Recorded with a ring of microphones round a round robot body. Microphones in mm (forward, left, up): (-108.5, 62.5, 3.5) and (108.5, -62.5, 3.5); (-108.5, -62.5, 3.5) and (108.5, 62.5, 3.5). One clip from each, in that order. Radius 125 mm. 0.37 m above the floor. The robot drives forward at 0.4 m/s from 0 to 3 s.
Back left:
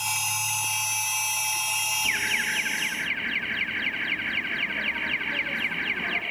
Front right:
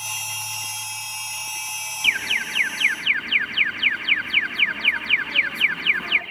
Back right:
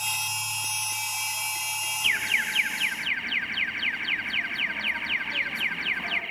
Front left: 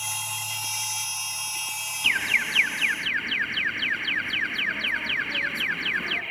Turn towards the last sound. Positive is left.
turn(degrees=-65)